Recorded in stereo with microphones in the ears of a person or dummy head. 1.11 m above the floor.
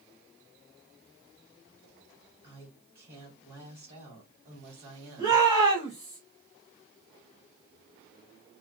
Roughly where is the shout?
Centre.